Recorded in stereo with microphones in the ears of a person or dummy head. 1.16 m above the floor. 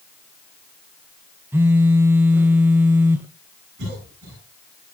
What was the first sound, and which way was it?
A phone buzzing, 10° right (ahead or behind).